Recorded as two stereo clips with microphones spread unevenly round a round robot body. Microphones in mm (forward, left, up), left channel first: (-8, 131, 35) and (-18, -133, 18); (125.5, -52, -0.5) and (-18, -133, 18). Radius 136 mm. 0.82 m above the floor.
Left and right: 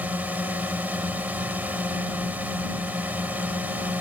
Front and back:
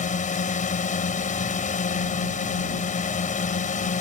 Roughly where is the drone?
Ahead.